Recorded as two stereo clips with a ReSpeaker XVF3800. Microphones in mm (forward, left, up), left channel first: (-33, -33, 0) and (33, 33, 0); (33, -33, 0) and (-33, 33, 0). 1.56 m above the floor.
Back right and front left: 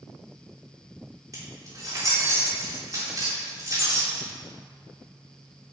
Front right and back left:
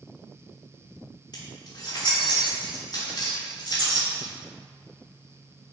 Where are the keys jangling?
5° right, 3 m.